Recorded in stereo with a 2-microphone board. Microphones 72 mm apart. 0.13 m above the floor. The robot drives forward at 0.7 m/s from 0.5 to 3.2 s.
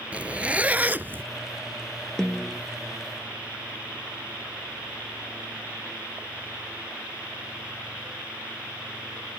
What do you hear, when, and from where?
0.1 s a zipper: 20° right (ahead or behind); by 1.2 s 30° right (ahead or behind)
2.2 s a snare drum: 10° left (ahead or behind); by 2.6 s 5° left (ahead or behind)